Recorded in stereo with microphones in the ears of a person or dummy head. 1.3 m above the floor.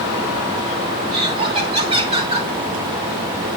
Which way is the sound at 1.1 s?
30° right (ahead or behind).